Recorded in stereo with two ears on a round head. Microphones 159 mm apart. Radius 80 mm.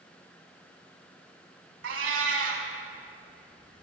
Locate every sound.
1.8 s a cat meowing: 80° right, 1.4 m